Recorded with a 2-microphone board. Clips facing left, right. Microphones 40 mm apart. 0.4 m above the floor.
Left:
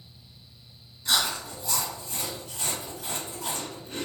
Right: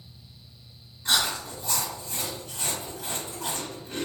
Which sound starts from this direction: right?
Chewing, at 1.1 s.